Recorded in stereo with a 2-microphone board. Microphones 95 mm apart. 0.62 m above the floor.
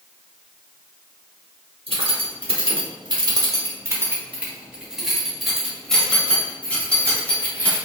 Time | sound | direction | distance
1.9 | keys jangling | 80° right | 1.2 m